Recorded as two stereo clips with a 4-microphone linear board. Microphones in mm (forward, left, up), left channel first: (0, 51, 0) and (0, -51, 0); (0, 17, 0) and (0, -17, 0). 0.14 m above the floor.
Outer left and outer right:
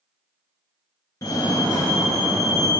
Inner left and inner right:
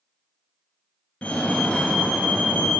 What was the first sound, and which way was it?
A fire alarm, 35° left (ahead or behind).